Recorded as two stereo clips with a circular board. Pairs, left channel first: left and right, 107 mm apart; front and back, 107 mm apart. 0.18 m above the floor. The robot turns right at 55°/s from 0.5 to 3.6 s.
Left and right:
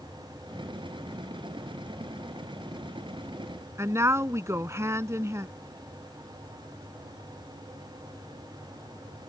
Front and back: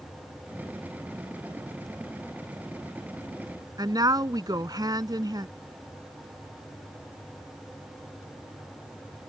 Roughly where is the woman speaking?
Behind right.